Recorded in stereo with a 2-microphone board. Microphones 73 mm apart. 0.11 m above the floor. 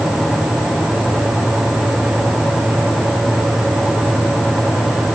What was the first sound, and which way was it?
Only background noise.